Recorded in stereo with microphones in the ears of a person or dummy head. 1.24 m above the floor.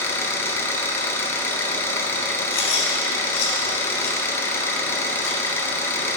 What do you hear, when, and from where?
0.0 s an engine running: 10° left (ahead or behind), 1.0 m
2.5 s chewing: 60° left (ahead or behind), 1.9 m